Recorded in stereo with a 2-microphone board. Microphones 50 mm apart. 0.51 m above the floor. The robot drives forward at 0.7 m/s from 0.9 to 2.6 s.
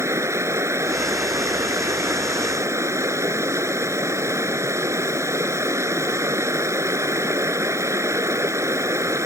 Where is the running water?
80° right; by 9.3 s 85° right.